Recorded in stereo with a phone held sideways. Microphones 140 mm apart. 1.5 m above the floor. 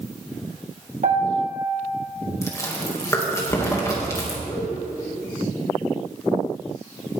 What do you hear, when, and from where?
1.0 s a piano: 60° right (ahead or behind), 1.9 m
2.4 s chewing: 20° left (ahead or behind), 2 m
4.4 s laughter: 25° left (ahead or behind), 3 m